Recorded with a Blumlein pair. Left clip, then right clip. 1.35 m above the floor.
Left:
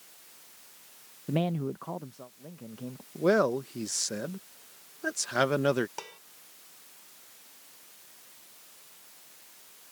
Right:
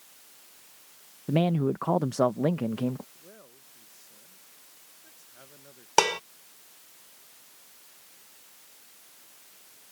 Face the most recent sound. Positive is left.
turn(degrees=-50)